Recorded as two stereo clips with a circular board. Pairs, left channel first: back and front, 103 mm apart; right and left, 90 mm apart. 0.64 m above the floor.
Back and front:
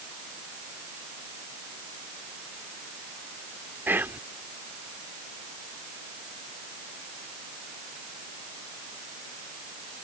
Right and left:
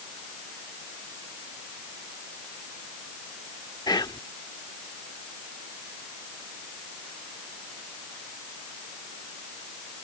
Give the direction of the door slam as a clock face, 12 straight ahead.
No door slam in this recording.